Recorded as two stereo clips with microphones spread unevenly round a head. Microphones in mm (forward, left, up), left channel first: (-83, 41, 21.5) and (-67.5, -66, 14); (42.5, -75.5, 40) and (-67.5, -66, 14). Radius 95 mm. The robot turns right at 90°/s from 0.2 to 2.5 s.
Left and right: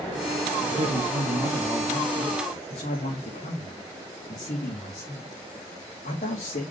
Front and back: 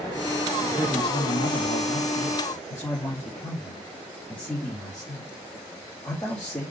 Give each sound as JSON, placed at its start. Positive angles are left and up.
{"t": 0.6, "sound": "a man speaking", "azimuth_deg": -95, "distance_m": 3.0}